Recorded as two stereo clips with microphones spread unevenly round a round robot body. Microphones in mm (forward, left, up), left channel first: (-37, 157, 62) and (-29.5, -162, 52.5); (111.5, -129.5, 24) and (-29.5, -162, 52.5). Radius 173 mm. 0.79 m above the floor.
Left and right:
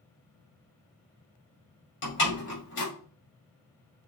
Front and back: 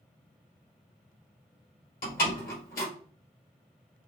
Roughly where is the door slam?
Ahead left.